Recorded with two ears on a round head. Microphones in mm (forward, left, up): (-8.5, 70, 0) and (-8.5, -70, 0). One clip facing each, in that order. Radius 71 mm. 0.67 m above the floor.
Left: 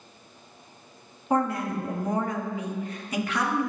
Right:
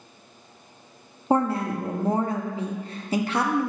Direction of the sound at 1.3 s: 25° right (ahead or behind).